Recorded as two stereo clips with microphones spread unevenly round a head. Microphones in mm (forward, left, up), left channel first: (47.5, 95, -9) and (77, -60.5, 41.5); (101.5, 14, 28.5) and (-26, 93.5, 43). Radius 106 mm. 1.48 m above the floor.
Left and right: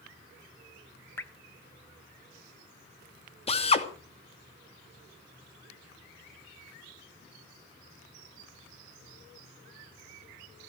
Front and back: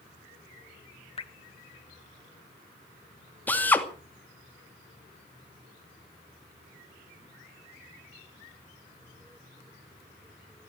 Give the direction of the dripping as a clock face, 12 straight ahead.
12 o'clock.